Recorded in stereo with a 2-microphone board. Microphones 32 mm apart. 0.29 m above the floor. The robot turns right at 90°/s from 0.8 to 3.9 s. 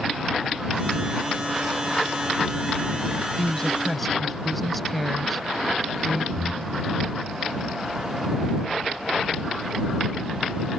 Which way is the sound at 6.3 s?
40° left (ahead or behind).